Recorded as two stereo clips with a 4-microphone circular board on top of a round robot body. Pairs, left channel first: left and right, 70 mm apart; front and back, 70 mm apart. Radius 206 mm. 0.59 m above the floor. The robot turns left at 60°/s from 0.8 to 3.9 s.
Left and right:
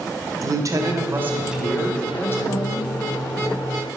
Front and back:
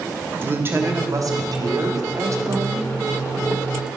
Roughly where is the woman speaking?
Behind right.